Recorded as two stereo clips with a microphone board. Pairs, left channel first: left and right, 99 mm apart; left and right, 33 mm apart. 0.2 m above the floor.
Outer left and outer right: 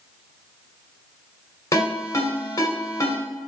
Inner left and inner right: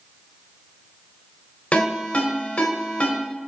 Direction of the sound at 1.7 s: 35° left (ahead or behind).